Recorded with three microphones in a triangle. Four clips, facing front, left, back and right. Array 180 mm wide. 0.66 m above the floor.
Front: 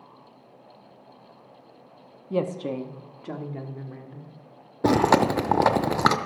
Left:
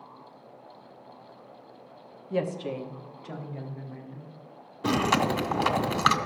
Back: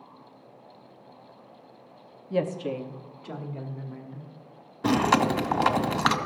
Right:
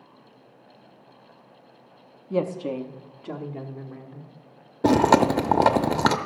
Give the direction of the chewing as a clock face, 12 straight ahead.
2 o'clock.